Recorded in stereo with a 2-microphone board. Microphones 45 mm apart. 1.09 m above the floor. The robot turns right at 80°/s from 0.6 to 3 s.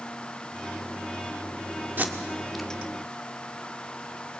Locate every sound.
2.0 s tape being pulled: 45° right (ahead or behind), 1.5 m; by 2.7 s 10° left (ahead or behind), 1.5 m